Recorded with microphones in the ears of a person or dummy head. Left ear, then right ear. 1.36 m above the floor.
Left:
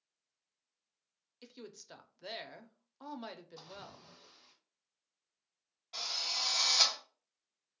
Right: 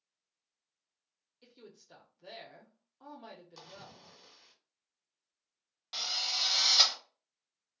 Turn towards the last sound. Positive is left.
turn(degrees=-50)  # may be behind; listen again after turning